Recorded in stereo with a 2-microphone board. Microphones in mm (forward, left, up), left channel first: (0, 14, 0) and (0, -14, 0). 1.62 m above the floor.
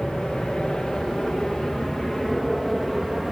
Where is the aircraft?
40° left (ahead or behind); by 3.3 s 10° left (ahead or behind).